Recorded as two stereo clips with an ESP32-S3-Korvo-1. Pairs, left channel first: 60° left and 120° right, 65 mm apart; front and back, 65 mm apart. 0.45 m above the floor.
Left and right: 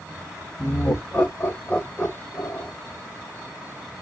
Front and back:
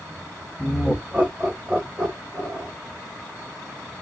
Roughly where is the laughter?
Left.